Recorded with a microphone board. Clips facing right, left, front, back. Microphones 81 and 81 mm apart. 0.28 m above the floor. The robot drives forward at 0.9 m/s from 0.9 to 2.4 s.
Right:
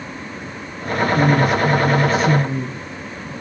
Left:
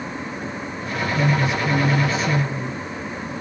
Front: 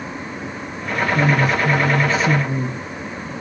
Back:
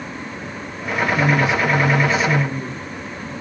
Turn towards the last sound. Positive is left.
turn(degrees=-50)